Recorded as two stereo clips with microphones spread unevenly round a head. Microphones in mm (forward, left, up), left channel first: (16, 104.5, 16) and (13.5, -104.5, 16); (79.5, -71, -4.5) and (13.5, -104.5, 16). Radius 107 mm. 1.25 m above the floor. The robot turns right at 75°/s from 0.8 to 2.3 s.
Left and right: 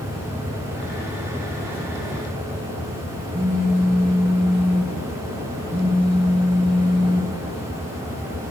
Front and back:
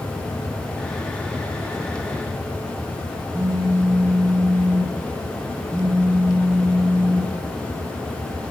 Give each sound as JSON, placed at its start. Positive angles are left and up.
{"t": 3.3, "sound": "a phone buzzing", "azimuth_deg": 30, "distance_m": 2.0}